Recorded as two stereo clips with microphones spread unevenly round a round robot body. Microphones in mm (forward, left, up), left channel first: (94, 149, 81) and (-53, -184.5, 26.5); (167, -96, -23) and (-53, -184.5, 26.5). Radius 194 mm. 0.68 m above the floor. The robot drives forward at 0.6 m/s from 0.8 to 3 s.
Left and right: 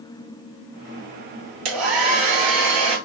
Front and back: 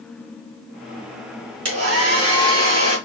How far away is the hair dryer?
About 2.5 m.